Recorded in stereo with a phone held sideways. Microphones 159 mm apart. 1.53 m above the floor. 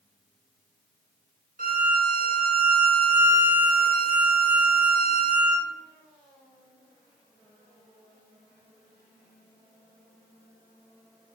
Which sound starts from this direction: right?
A violin, at 1.6 s.